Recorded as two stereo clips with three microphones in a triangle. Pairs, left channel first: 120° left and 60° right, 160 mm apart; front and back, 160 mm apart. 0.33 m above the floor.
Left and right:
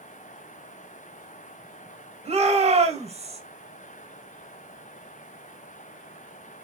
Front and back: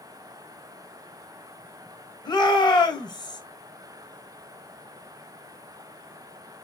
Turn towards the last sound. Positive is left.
turn(degrees=-50)